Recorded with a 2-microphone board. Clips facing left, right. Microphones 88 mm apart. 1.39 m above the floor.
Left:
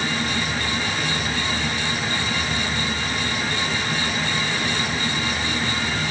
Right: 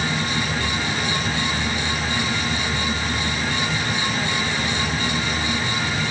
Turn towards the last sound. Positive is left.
No sound to turn to.